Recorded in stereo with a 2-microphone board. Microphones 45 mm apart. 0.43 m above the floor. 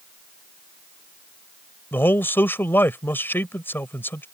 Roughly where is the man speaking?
Left.